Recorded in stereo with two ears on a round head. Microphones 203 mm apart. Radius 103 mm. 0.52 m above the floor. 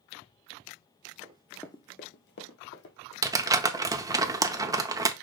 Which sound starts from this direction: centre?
Crumpling, at 3.2 s.